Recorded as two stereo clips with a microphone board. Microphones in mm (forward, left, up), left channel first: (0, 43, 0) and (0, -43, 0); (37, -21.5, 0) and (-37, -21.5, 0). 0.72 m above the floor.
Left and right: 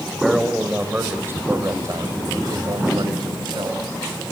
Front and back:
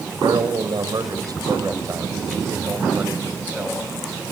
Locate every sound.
0.2 s a man speaking: 175° right, 3 m; by 3.8 s 110° right, 3.5 m